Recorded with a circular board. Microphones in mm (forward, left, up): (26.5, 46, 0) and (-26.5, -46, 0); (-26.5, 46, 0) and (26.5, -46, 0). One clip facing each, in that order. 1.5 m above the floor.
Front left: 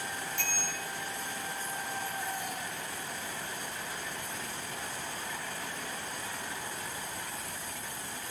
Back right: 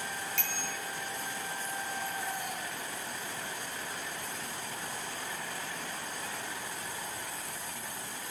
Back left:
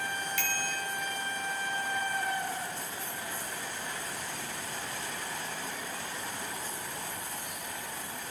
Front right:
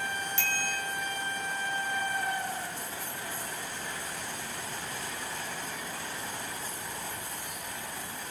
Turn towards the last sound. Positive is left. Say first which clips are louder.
# even, front right 1 dB
turn(degrees=-120)